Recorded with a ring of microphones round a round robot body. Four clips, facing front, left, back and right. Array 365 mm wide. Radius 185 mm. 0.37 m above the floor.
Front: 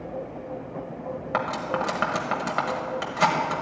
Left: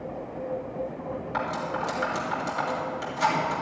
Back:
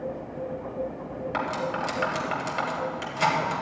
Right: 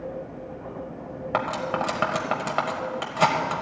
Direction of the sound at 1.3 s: 70° right.